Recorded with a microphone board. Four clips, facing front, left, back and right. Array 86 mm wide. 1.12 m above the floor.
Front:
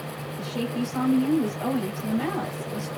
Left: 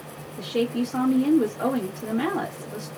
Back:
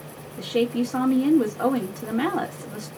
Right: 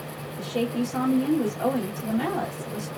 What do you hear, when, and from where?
0.4 s a woman speaking: 160° left, 1.6 m